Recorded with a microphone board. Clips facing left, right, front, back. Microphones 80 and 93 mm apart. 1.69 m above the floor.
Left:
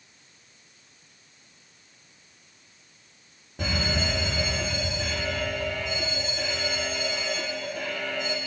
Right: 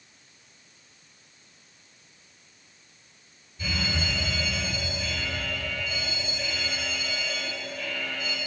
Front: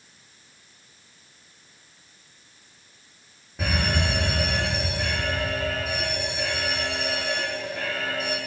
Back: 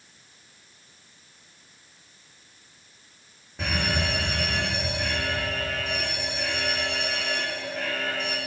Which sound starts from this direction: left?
An alarm, at 3.6 s.